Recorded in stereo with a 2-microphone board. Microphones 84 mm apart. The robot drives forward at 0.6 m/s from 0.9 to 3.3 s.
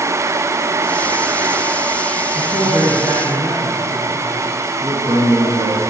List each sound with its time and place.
2.4 s a man speaking: 55° right (ahead or behind), 2.5 m; by 4.5 s 45° right (ahead or behind), 3 m
4.8 s a man speaking: 40° right (ahead or behind), 2.5 m